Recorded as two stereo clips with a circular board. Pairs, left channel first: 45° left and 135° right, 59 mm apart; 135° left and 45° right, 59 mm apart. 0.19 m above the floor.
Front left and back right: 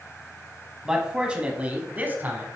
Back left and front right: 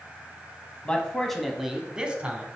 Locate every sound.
0.8 s a man speaking: 160° left, 1.2 m; by 2.5 s 95° right, 1.5 m